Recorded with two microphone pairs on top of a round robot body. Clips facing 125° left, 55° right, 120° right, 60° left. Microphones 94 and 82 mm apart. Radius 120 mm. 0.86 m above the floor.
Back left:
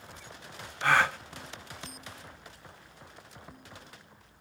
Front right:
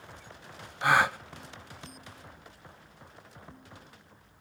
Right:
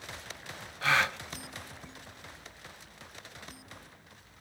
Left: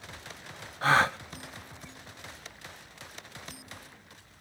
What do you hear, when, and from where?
0.8 s a gasp: 5° left, 0.7 m